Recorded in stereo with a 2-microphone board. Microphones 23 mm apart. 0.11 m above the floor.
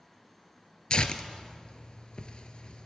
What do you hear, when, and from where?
0.9 s tearing paper: 50° left (ahead or behind), 0.5 m